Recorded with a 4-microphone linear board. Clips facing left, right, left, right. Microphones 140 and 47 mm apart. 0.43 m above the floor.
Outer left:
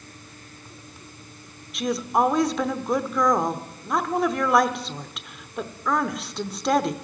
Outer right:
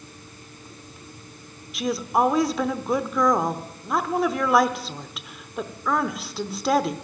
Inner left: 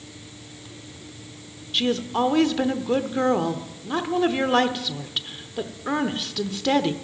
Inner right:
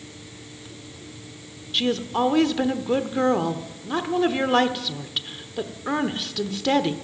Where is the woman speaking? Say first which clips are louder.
Even, even; centre (ahead or behind), 0.8 m.